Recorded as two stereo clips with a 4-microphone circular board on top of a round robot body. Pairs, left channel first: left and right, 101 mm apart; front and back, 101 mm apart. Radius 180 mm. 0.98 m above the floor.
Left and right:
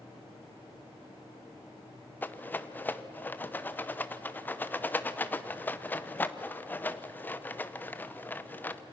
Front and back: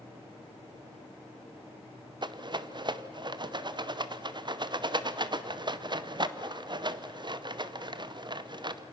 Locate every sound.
2.2 s a rattle: 155° left, 1.0 m